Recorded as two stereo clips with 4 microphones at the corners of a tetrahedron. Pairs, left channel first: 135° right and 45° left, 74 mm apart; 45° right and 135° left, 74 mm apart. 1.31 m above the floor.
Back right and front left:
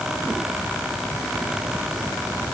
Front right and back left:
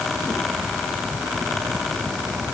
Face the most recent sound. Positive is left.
No sound to turn to.